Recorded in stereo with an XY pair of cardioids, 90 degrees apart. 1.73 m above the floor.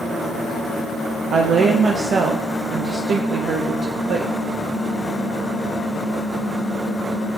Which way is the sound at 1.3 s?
65° right.